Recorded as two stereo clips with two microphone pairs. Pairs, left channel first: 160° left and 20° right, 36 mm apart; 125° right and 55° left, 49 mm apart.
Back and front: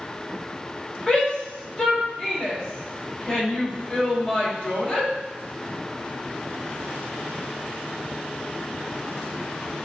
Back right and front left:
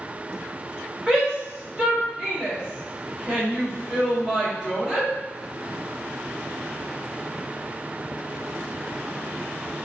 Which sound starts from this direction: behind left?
A shout, at 1.1 s.